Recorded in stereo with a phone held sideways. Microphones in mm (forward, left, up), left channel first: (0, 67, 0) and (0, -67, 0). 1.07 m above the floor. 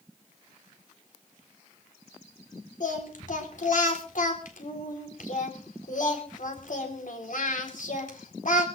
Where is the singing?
80° left, 4 m.